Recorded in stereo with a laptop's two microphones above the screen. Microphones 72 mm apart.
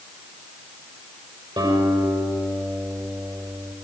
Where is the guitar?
85° right, 6 m.